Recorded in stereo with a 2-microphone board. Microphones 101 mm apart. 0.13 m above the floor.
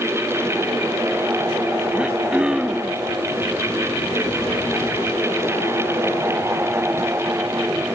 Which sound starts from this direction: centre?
Throat clearing, at 1.9 s.